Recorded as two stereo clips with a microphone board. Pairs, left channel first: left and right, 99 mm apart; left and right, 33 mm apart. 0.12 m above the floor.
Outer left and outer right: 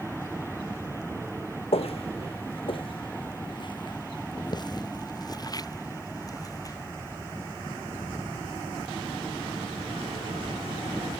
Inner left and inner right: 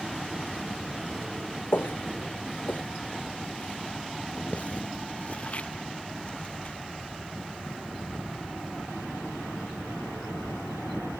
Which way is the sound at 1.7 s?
80° left.